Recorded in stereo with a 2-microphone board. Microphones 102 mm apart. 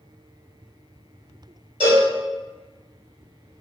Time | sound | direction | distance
1.8 | a cowbell | 55° right (ahead or behind) | 1.8 m